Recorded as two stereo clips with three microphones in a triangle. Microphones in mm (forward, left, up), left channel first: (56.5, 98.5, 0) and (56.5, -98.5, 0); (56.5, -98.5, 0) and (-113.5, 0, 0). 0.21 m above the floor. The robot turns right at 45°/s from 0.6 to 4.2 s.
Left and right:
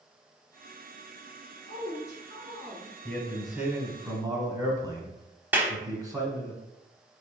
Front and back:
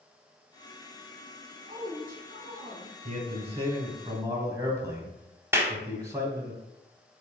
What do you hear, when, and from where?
1.7 s a woman speaking: 110° left, 2 m; by 3.0 s 170° left, 2 m
3.0 s a man speaking: 160° left, 1.1 m; by 6.5 s 145° right, 1.1 m
5.5 s a clap: 150° right, 0.8 m